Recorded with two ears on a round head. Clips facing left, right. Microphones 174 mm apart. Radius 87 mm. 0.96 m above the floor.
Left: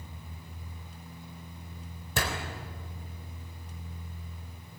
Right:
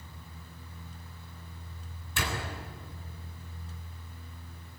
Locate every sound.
2.2 s a door slam: 35° left (ahead or behind), 4 m